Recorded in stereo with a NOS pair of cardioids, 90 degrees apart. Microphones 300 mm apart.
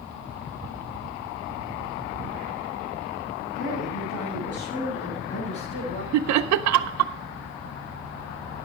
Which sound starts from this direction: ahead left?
A woman speaking, at 3.5 s.